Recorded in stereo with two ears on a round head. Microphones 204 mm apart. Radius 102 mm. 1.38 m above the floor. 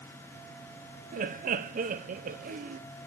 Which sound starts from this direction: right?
Laughter, at 1.1 s.